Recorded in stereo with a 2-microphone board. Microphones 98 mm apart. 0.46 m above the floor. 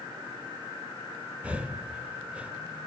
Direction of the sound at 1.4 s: 15° right (ahead or behind).